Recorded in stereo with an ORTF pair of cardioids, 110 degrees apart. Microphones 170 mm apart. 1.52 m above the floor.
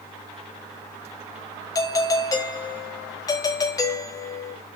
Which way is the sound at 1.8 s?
20° left.